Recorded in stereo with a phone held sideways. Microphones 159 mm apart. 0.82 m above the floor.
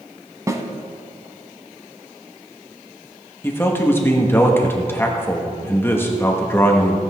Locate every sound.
0.5 s a snare drum: 20° right (ahead or behind), 1.1 m
3.4 s a man speaking: 15° left (ahead or behind), 1.3 m